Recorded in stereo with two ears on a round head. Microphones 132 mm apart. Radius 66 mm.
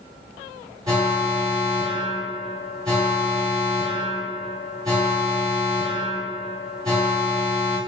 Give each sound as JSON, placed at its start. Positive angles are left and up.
{"t": 0.9, "sound": "an alarm", "side_deg": -25, "distance_m": 1.7}